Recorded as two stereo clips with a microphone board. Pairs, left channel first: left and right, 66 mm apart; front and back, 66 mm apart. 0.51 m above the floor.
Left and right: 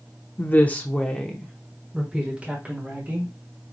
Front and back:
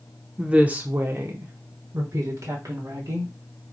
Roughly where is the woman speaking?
Behind left.